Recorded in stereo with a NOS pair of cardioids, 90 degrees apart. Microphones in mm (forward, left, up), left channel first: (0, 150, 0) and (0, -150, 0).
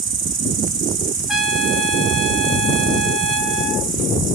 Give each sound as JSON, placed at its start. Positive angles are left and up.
{"t": 0.0, "sound": "an insect", "azimuth_deg": -40, "distance_m": 0.9}
{"t": 1.3, "sound": "a trumpet", "azimuth_deg": 0, "distance_m": 0.5}